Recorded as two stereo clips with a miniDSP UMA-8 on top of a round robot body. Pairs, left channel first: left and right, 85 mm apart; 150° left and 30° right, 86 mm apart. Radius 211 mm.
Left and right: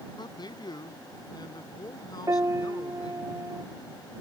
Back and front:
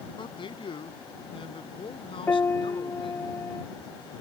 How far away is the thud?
I don't hear a thud.